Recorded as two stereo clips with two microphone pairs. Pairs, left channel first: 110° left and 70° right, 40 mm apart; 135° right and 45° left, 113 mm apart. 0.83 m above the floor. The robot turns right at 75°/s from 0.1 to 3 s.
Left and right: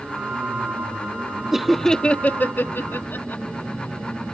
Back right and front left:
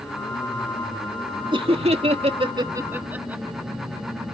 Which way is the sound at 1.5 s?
10° left.